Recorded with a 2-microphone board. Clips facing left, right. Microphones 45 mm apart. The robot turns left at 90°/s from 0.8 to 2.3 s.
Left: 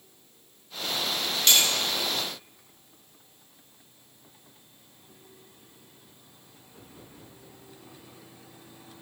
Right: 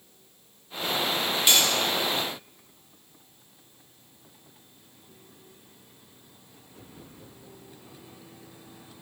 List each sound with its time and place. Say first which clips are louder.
1.5 s cutlery clinking: even; 15° right (ahead or behind), 0.5 m; by 1.7 s 5° left (ahead or behind), 0.5 m